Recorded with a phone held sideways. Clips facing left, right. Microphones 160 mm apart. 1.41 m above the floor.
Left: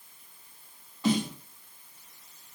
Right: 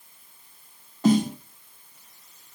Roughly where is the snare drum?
Right.